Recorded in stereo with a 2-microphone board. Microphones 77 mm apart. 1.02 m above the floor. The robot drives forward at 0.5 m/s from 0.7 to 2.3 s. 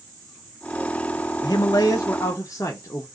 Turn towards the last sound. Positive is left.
turn(degrees=40)  # may be behind; listen again after turning